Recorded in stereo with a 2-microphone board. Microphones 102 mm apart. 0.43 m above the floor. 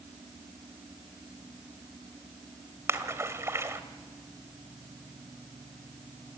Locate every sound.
2.9 s a splash: 30° right (ahead or behind), 1.8 m